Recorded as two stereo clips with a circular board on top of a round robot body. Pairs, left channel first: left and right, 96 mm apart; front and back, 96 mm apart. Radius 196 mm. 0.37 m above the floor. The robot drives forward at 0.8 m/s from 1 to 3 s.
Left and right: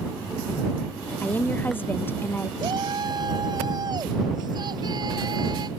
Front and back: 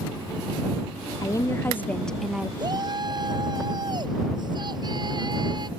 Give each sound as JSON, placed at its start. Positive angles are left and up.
{"t": 1.2, "sound": "a woman speaking", "azimuth_deg": 25}
{"t": 2.6, "sound": "a shout", "azimuth_deg": -135}